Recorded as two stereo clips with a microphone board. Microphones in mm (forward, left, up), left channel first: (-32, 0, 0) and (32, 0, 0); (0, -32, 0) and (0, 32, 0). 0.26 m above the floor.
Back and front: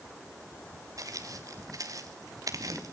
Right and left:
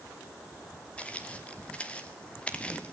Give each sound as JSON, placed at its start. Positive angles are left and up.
{"t": 1.0, "sound": "footsteps", "azimuth_deg": -20, "distance_m": 3.0}